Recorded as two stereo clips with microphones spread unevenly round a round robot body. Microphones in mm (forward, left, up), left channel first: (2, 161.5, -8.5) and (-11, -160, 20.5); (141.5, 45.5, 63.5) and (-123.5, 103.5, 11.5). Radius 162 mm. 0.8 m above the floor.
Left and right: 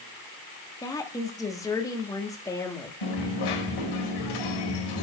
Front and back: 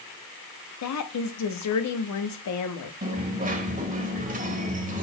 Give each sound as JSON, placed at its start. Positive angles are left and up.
{"t": 0.8, "sound": "a woman speaking", "azimuth_deg": 10, "distance_m": 1.4}
{"t": 3.0, "sound": "a dropped coin", "azimuth_deg": 105, "distance_m": 1.8}